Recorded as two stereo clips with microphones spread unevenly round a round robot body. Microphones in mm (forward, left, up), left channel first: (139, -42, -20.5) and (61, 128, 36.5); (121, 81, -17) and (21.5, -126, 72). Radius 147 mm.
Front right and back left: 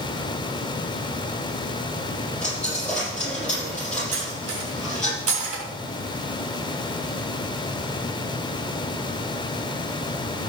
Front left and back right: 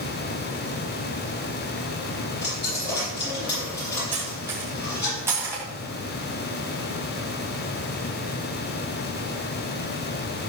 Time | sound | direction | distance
2.4 | a dropped coin | 20° left | 6 m
4.1 | cutlery clinking | 160° left | 2 m